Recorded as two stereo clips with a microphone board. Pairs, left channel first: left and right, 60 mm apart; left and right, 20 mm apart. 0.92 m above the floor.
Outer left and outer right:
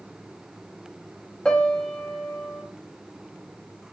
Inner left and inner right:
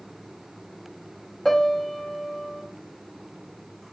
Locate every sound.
1.4 s a piano: 15° left (ahead or behind), 1.6 m